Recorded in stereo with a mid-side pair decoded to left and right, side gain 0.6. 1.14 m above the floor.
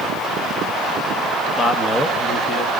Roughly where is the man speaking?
Ahead.